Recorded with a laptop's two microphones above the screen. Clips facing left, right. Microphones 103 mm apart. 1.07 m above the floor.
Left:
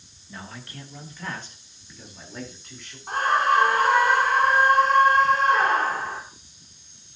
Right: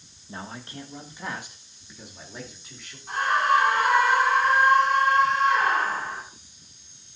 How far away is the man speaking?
About 1.3 m.